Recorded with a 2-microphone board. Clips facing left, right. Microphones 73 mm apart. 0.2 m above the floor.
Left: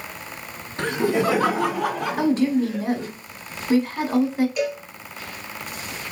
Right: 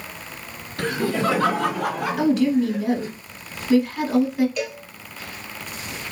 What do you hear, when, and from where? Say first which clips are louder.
0.8 s laughter: left 2 dB; 25° left (ahead or behind), 1.4 m; by 3.1 s 10° right (ahead or behind), 3 m
2.2 s a woman speaking: right 1 dB; 35° left (ahead or behind), 1.2 m
4.6 s a cowbell: left 4 dB; 10° left (ahead or behind), 1.6 m